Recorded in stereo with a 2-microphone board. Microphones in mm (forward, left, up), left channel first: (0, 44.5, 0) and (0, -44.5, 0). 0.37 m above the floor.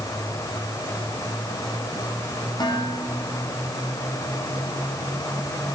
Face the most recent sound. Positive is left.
turn(degrees=55)  # may be behind; listen again after turning